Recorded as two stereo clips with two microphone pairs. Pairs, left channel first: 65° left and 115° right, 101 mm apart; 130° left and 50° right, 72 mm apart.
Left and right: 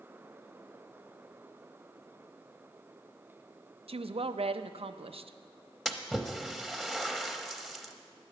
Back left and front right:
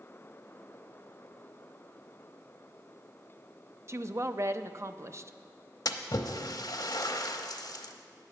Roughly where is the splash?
Behind left.